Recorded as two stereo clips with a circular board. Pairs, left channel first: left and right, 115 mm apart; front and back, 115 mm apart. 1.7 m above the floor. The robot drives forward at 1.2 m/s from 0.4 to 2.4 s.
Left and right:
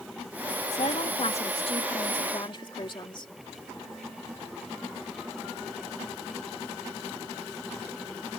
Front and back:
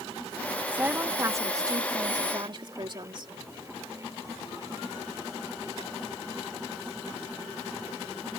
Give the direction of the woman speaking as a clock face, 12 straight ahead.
9 o'clock.